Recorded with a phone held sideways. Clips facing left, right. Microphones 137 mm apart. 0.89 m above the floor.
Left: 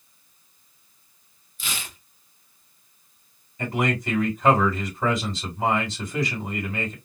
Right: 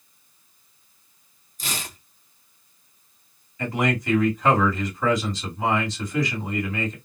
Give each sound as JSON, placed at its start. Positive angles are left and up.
{"t": 1.6, "sound": "tearing paper", "side_deg": -40, "distance_m": 1.0}
{"t": 3.6, "sound": "a man speaking", "side_deg": 25, "distance_m": 2.0}